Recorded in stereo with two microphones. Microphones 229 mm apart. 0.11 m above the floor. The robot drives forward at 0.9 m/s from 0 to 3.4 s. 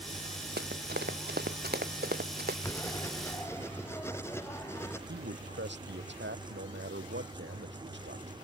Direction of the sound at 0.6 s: 45° right (ahead or behind).